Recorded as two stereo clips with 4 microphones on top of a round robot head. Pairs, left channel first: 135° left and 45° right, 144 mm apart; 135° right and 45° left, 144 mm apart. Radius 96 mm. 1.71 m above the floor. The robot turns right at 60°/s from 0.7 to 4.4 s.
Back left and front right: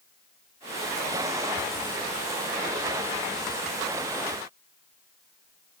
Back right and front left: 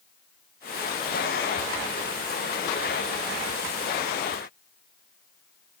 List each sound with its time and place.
Only background noise.